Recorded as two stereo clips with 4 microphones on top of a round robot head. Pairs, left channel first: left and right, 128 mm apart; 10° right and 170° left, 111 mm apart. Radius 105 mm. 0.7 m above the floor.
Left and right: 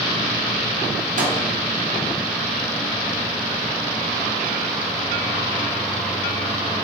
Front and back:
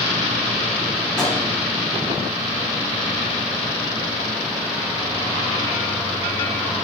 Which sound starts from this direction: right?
A microwave, at 1.2 s.